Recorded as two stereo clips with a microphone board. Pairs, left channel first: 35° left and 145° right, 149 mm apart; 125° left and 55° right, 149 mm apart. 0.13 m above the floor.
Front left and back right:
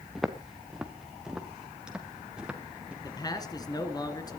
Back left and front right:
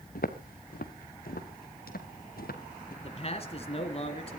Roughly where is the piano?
I don't hear a piano.